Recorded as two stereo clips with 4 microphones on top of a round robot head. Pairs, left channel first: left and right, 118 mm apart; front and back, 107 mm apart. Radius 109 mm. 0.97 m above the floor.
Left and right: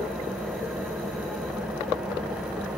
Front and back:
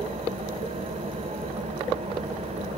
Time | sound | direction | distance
0.0 | an engine running | 175° right | 10 m